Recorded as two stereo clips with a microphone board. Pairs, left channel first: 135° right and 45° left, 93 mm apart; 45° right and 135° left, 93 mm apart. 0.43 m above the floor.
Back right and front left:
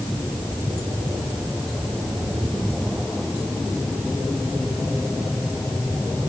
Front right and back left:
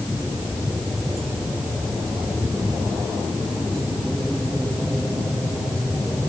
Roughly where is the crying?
No crying in this recording.